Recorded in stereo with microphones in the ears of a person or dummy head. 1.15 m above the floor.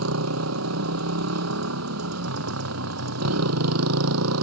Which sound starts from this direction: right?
A motorcycle, at 0.0 s.